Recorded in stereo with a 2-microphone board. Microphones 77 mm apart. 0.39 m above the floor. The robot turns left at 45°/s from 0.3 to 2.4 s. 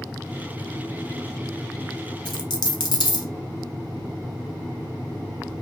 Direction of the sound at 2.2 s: 80° left.